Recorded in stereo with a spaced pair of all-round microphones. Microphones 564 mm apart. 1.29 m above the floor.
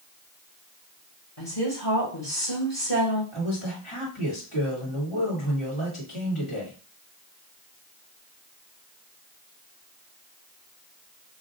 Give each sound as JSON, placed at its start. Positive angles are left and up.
{"t": 1.4, "sound": "a woman speaking", "side_deg": 25, "distance_m": 1.7}
{"t": 3.3, "sound": "a man speaking", "side_deg": 55, "distance_m": 2.0}